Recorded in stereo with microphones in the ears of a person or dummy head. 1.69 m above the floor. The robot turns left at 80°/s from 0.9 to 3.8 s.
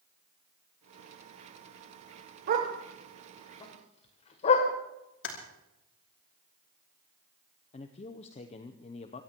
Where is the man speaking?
45° left (ahead or behind), 0.8 m.